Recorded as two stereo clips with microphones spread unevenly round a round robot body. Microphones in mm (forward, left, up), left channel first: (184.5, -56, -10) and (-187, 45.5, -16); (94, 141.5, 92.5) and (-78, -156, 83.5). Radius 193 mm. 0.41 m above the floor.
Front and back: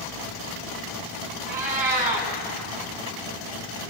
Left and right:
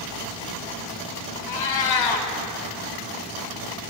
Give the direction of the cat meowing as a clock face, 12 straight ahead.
9 o'clock.